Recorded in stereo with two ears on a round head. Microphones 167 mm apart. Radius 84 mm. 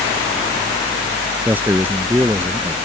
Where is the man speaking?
10° right (ahead or behind).